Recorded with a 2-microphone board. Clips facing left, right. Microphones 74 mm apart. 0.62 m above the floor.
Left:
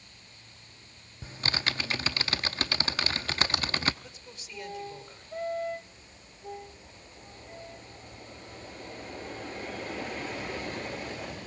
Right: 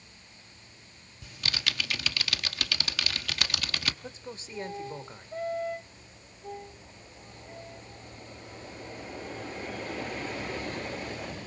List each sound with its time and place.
1.2 s typing on a keyboard: 35° left (ahead or behind), 0.9 m
4.0 s a man speaking: 35° right (ahead or behind), 2 m